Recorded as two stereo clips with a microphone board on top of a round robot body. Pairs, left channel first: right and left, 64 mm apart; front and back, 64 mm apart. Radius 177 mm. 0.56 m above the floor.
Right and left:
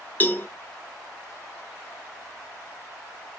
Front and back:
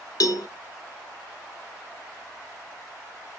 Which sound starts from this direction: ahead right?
A cowbell, at 0.2 s.